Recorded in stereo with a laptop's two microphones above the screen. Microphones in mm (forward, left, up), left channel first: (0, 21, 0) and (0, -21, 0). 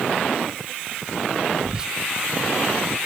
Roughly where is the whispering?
Centre.